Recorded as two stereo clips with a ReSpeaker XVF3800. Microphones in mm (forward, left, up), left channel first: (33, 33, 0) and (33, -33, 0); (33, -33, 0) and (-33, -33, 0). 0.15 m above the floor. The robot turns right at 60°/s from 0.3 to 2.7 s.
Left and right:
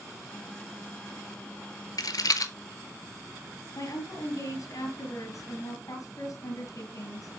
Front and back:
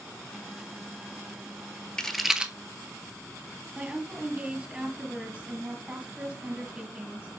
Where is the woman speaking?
105° left, 3 m.